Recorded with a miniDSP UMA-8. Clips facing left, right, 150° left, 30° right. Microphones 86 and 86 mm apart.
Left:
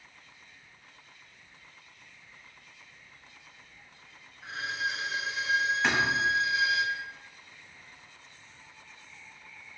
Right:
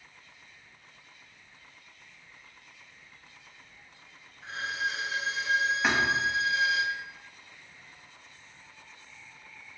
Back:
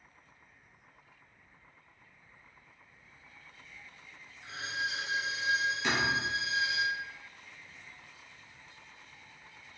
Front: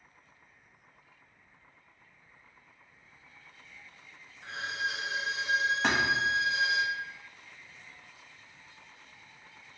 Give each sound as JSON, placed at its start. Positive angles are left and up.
{"t": 4.4, "sound": "a violin", "azimuth_deg": 0, "distance_m": 1.3}
{"t": 5.8, "sound": "a thud", "azimuth_deg": -10, "distance_m": 1.3}